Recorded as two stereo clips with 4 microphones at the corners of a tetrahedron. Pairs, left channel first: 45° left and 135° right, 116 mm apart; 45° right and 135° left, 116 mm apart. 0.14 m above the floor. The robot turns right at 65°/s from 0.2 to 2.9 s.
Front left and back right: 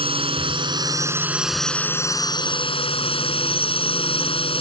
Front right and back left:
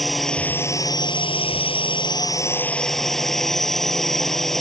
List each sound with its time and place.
0.0 s a drone: 135° right; by 4.6 s 40° left